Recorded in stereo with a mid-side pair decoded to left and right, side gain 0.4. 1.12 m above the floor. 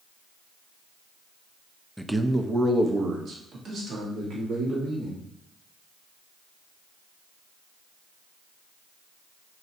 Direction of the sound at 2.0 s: Straight ahead.